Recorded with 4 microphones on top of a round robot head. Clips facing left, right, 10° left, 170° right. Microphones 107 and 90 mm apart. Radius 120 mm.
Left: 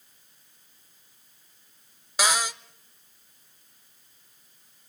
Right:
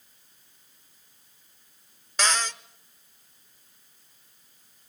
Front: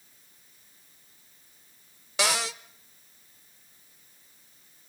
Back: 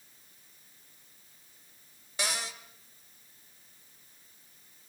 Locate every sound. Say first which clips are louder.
2.2 s a cupboard door: left 1 dB, front 8 dB; 10° left, 0.8 m